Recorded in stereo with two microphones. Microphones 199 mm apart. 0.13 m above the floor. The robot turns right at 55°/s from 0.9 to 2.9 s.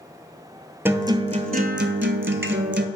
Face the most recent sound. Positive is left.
turn(degrees=-60)